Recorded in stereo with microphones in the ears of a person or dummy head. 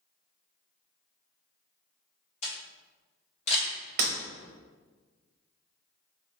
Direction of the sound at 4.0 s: 45° right (ahead or behind).